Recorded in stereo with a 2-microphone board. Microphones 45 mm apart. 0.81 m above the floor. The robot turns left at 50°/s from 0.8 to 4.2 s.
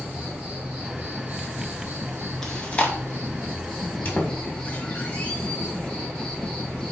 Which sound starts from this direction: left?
A squeak, at 4.0 s.